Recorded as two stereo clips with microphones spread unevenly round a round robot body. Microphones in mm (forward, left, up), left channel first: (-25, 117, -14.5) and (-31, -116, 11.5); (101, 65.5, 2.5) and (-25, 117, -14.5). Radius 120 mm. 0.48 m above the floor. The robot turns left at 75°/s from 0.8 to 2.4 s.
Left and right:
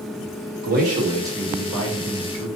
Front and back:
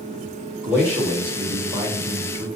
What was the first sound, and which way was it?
A man speaking, 130° right.